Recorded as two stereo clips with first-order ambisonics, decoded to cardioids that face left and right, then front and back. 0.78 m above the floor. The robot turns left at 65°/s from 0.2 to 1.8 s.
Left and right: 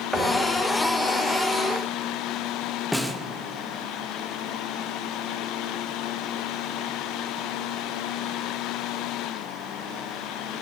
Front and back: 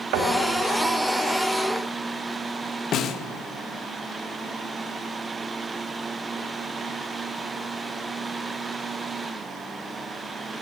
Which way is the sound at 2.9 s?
5° left.